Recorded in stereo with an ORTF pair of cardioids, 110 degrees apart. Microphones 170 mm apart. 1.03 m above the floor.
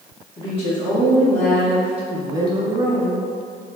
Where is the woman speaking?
35° left, 1.7 m; by 3.2 s 45° right, 1.6 m.